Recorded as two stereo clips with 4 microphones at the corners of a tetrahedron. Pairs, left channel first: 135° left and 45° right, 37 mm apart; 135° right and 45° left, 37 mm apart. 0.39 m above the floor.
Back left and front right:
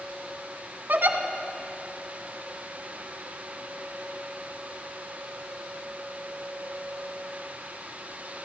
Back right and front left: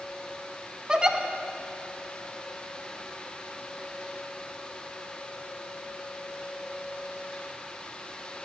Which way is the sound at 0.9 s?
20° right.